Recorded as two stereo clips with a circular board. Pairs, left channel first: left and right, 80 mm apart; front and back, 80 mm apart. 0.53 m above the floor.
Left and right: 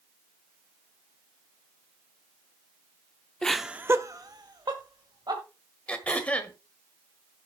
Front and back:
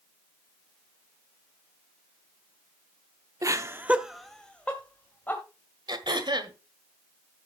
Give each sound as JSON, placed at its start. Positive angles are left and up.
{"t": 3.4, "sound": "laughter", "azimuth_deg": 165, "distance_m": 0.9}
{"t": 5.9, "sound": "throat clearing", "azimuth_deg": 165, "distance_m": 1.5}